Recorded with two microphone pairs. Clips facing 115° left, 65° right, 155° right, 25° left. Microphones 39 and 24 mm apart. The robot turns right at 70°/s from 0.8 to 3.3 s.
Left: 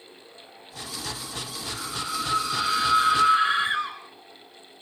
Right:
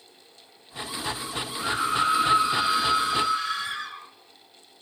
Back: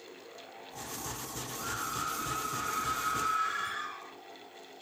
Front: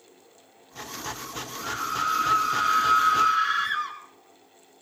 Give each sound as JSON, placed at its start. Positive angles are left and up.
{"t": 1.6, "sound": "a scream", "azimuth_deg": -55, "distance_m": 4.0}